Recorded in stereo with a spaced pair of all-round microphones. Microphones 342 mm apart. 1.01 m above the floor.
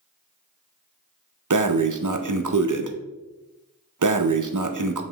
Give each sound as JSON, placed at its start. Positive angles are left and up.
{"t": 1.5, "sound": "breathing", "side_deg": -60, "distance_m": 0.6}